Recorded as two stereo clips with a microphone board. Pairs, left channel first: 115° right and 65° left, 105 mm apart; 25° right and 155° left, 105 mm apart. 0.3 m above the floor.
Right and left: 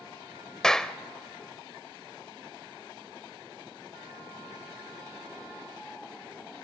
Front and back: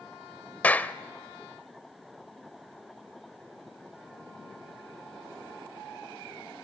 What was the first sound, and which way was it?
A clap, 40° right.